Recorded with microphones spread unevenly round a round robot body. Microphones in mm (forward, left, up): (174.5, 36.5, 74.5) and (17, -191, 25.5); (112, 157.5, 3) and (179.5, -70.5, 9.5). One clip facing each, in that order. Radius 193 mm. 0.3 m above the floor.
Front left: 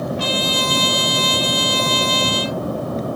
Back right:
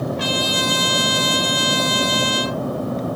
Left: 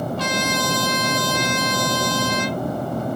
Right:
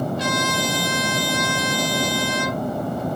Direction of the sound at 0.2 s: 85° left.